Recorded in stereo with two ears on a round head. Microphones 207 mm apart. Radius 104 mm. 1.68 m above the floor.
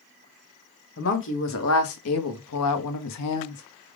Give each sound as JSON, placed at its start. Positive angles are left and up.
{"t": 1.0, "sound": "a woman speaking", "side_deg": 55, "distance_m": 1.7}